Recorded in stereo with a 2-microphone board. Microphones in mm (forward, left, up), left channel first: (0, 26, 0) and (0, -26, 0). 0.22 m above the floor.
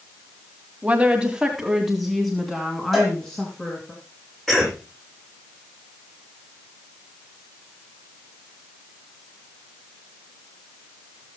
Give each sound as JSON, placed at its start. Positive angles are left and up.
{"t": 0.8, "sound": "a woman speaking", "side_deg": -25, "distance_m": 1.9}
{"t": 2.9, "sound": "a cowbell", "side_deg": 5, "distance_m": 10.0}
{"t": 4.5, "sound": "a cough", "side_deg": 10, "distance_m": 9.5}